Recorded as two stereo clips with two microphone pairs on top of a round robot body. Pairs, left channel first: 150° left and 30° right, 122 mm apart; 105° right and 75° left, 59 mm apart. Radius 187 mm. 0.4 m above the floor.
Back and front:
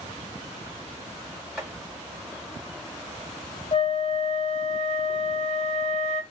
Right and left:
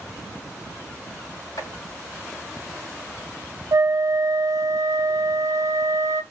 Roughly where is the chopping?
Behind right.